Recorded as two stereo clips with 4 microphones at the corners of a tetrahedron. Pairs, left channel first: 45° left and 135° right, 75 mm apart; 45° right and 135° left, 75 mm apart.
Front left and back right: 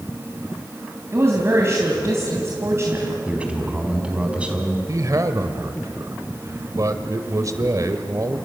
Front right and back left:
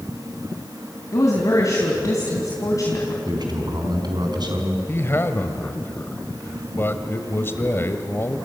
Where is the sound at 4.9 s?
100° right, 1.6 m.